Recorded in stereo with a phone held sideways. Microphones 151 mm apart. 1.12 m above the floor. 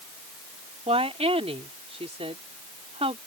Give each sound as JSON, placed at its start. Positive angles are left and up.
{"t": 0.9, "sound": "a woman speaking", "side_deg": -40}